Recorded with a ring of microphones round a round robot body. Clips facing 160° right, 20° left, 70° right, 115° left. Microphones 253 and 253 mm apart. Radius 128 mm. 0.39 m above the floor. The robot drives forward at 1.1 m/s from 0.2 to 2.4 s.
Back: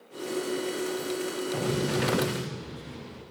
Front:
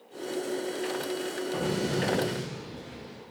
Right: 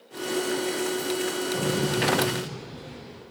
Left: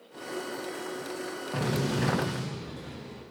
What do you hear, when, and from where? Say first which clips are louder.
1.5 s an explosion: back 1 dB, right 1 dB; 120° left, 10 m; by 3.2 s 125° left, 10.5 m